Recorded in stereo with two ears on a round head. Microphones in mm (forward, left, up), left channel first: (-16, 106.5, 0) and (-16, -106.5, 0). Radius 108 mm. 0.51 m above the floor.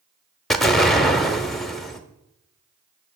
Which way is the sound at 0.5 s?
Centre (ahead or behind).